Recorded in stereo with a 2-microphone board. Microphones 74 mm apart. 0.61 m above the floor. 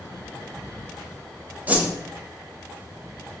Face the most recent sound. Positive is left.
turn(degrees=-20)  # may be behind; listen again after turning